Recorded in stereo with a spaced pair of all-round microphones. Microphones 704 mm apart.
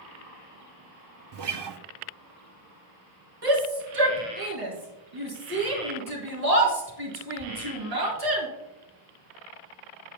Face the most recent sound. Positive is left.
turn(degrees=-60)  # may be behind; listen again after turning